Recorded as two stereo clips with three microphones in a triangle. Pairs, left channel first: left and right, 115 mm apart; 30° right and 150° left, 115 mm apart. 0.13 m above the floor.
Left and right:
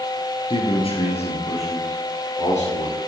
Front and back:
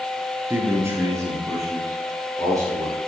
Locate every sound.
0.5 s a man speaking: 85° left, 1.8 m; by 3.0 s 90° left, 5 m